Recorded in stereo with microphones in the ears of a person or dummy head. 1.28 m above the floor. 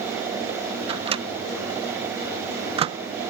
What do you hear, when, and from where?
0.9 s a microwave: 30° right (ahead or behind)